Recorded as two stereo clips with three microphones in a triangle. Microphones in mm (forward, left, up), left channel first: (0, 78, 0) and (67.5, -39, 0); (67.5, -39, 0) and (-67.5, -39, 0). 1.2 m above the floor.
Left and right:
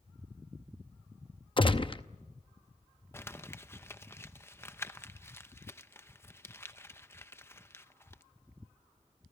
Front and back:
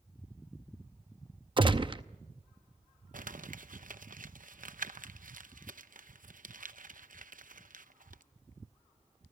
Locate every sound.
1.6 s a gunshot: 150° left, 0.7 m
3.1 s crumpling: 170° right, 0.7 m